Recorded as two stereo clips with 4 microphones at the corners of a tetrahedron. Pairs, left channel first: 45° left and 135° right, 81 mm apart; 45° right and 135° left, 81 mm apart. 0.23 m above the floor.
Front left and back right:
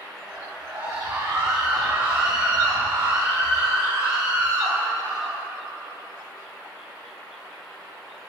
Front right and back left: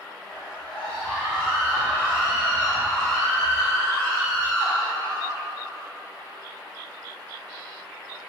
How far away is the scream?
About 5.5 m.